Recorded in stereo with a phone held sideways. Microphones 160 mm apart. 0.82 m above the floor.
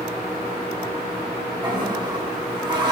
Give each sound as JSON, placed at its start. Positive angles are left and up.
{"t": 1.6, "sound": "a toilet flushing", "side_deg": -30, "distance_m": 2.0}